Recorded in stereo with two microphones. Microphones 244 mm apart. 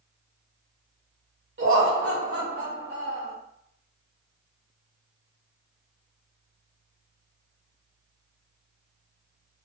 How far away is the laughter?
About 0.8 m.